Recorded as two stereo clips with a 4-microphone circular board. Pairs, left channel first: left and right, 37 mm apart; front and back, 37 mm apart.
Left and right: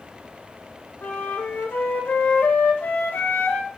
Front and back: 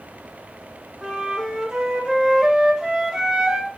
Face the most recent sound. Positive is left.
turn(degrees=105)